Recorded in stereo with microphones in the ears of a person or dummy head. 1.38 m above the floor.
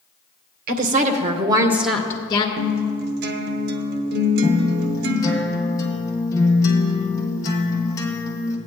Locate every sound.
0.7 s a woman speaking: 55° right (ahead or behind), 1.2 m; by 2.5 s 25° left (ahead or behind), 0.9 m
2.6 s a guitar: 60° right (ahead or behind), 0.9 m
4.4 s a guitar: 15° left (ahead or behind), 1.3 m